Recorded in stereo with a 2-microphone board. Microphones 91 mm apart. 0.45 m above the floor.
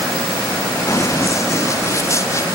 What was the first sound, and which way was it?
Running footsteps, 35° left (ahead or behind).